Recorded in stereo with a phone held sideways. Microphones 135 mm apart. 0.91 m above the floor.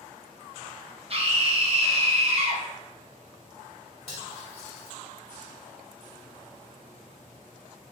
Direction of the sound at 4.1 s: 50° left (ahead or behind).